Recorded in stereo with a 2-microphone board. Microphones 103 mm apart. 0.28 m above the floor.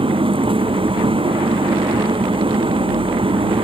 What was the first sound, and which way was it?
An engine running, 60° right (ahead or behind).